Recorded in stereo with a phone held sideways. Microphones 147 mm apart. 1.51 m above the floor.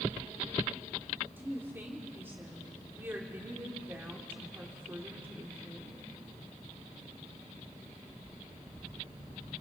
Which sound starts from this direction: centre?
A woman speaking, at 1.4 s.